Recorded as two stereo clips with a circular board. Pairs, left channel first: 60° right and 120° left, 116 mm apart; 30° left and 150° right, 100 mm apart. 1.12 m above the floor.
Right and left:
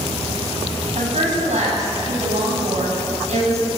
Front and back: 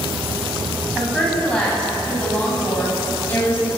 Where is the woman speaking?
115° left, 9.5 m; by 3.7 s 100° left, 10 m.